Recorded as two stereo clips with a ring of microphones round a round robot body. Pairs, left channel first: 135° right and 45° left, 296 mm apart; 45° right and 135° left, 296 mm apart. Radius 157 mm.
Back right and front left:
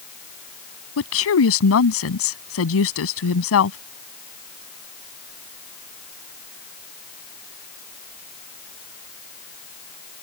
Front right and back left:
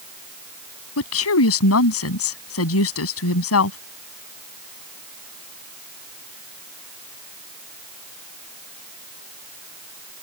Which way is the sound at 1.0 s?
90° right.